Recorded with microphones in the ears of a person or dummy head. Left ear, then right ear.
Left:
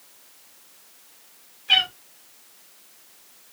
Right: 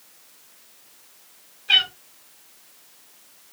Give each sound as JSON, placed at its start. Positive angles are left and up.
{"t": 1.7, "sound": "a cat meowing", "side_deg": 0, "distance_m": 1.6}